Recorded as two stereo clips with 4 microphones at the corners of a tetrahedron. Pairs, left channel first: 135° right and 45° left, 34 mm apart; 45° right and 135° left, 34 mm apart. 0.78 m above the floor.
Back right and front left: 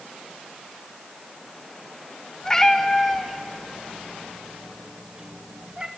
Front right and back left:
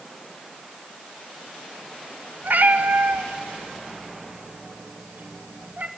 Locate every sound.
2.4 s a cat meowing: 155° left, 1.4 m; by 5.9 s 100° left, 2 m